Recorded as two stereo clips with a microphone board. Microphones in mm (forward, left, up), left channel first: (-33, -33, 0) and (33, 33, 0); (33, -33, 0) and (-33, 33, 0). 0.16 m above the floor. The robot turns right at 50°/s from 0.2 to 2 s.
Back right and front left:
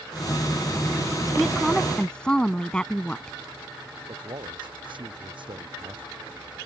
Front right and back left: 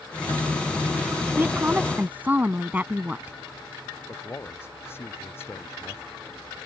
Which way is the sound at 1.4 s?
130° left.